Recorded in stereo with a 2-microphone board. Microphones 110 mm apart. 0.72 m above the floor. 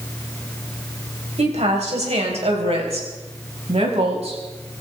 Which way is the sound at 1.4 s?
80° right.